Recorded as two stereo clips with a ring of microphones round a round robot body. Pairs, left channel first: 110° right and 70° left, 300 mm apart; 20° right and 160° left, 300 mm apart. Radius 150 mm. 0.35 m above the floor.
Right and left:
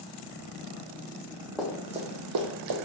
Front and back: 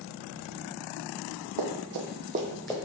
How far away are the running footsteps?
About 1.0 m.